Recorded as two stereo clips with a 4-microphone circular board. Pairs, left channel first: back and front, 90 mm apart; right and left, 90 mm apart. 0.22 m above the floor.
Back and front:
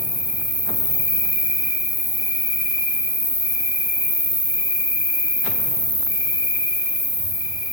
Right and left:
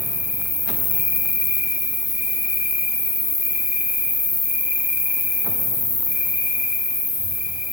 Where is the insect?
30° left, 8.5 m.